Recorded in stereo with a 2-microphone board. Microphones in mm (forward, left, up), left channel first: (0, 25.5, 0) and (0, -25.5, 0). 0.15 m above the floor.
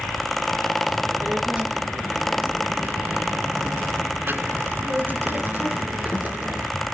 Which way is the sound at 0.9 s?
20° right (ahead or behind).